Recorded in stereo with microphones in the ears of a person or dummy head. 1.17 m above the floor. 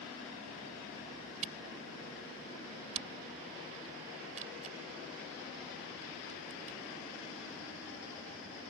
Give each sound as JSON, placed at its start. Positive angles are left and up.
{"t": 1.4, "sound": "a camera shutter", "side_deg": -40}